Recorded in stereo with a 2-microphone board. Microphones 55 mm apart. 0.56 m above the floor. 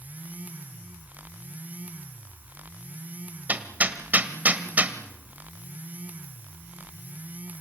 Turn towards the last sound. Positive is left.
turn(degrees=-30)  # may be behind; listen again after turning